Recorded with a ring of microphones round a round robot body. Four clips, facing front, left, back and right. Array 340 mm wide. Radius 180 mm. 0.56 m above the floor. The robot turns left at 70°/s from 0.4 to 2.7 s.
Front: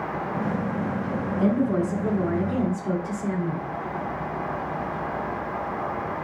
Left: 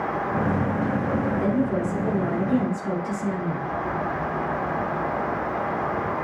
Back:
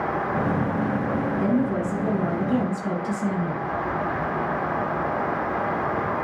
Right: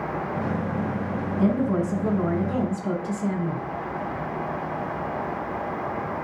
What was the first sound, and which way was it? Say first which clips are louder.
A woman speaking: even, front 3 dB; 45° right.